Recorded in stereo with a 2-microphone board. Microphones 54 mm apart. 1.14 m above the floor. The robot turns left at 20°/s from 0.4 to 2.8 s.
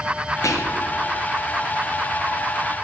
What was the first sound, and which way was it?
Whispering, 70° left (ahead or behind).